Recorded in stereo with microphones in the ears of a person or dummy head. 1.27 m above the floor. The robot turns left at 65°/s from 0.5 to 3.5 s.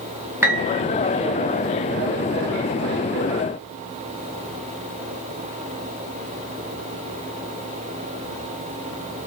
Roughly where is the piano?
Centre.